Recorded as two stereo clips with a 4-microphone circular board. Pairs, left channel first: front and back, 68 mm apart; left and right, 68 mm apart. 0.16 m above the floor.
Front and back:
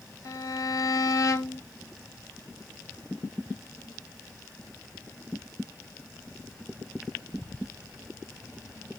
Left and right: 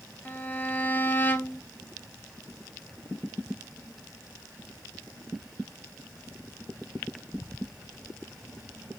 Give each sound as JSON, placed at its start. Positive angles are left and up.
{"t": 0.2, "sound": "a violin", "azimuth_deg": 30, "distance_m": 0.6}